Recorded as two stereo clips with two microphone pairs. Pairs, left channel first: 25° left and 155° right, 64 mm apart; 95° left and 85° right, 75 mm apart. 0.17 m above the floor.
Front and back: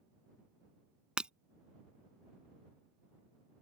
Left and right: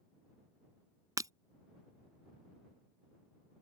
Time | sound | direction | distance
1.2 | breaking glass | 90° right | ?